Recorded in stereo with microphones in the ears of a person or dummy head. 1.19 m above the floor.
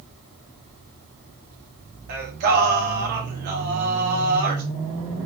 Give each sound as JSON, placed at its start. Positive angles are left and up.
{"t": 2.1, "sound": "singing", "side_deg": -55, "distance_m": 0.7}